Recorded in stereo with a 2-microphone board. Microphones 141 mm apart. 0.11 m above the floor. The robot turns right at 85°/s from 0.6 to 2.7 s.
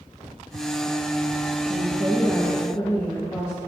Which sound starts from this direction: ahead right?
A woman speaking, at 1.7 s.